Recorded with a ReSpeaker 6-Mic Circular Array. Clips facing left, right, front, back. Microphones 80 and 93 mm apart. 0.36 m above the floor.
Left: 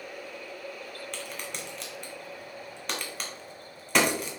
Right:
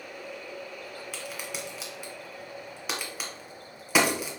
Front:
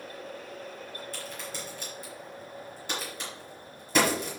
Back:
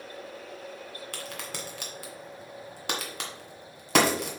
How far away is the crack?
About 1.8 m.